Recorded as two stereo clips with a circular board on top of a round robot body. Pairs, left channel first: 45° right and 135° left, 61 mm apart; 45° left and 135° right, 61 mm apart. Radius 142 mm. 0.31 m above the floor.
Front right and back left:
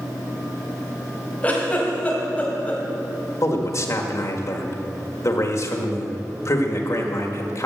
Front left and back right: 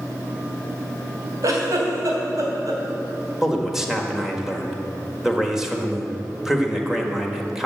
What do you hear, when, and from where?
1.4 s a giggle: 110° right, 3 m
3.4 s a man speaking: 55° right, 1.8 m